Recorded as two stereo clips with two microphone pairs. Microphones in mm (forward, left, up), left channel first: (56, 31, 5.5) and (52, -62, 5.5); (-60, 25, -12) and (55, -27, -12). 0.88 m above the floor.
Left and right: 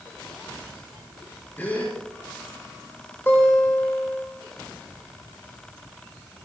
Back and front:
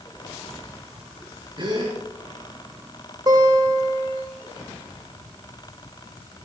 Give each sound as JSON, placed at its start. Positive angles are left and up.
{"t": 1.6, "sound": "a gasp", "azimuth_deg": 20, "distance_m": 5.5}
{"t": 3.3, "sound": "a guitar", "azimuth_deg": 20, "distance_m": 4.0}